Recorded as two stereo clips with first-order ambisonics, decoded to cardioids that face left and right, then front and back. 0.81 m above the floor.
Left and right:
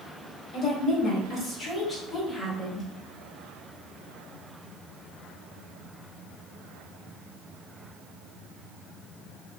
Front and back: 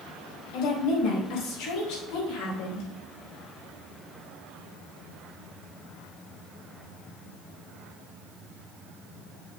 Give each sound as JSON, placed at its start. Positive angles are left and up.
{"t": 0.5, "sound": "a woman speaking", "azimuth_deg": 25, "distance_m": 4.5}